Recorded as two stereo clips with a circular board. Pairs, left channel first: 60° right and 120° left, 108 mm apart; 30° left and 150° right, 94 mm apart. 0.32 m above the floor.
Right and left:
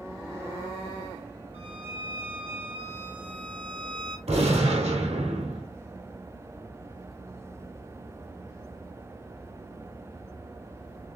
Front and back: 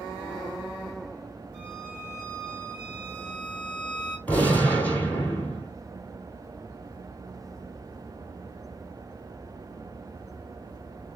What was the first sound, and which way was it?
A violin, 130° left.